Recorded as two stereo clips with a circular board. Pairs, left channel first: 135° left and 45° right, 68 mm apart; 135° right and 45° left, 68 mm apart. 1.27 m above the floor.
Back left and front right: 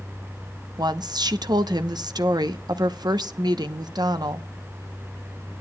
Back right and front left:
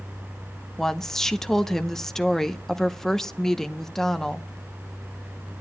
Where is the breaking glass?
I don't hear breaking glass.